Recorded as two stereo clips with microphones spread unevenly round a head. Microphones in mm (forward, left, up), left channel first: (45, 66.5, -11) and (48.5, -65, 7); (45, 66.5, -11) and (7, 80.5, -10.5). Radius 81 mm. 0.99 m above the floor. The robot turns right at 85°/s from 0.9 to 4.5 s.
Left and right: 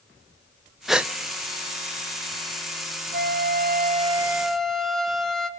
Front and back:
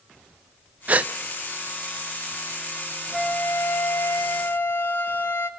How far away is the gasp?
About 0.5 m.